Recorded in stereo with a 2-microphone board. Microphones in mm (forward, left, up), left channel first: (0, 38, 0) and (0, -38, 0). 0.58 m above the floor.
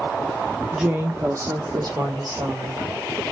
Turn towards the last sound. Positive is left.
turn(degrees=-60)  # may be behind; listen again after turning